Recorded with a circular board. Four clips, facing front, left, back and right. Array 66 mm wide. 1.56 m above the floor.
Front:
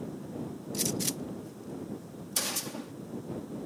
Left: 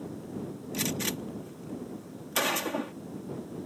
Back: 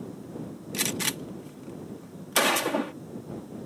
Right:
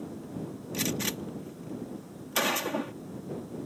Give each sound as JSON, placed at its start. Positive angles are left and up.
{"t": 0.7, "sound": "a gunshot", "azimuth_deg": 180}